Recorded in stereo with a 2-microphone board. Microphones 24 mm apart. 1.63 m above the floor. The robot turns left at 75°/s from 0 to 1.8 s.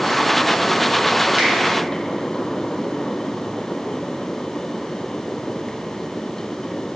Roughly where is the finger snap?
Right.